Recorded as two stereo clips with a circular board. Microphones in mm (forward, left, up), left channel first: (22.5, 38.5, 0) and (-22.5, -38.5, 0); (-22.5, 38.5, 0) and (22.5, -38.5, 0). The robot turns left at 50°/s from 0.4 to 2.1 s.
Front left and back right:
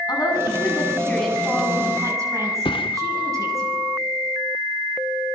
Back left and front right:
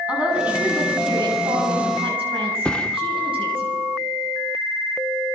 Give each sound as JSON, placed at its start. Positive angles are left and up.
{"t": 0.1, "sound": "a woman speaking", "azimuth_deg": 15, "distance_m": 9.0}
{"t": 2.6, "sound": "a thud", "azimuth_deg": 40, "distance_m": 1.0}